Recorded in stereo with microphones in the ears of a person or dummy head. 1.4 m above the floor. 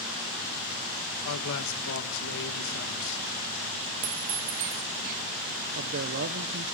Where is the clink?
30° right (ahead or behind), 0.5 m.